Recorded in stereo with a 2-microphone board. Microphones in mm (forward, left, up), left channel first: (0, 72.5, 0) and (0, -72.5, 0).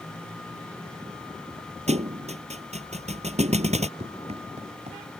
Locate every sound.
1.9 s a thud: 50° right (ahead or behind)
4.0 s running footsteps: 45° right (ahead or behind)